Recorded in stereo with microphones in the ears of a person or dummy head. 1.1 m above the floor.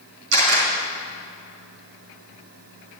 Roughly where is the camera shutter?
Right.